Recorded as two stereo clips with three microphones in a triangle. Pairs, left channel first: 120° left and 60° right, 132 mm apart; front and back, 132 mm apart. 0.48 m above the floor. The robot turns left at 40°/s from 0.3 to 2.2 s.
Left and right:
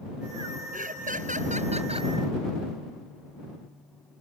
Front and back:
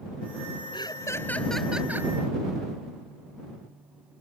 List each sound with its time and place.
0.7 s laughter: 55° right; by 2.1 s 110° right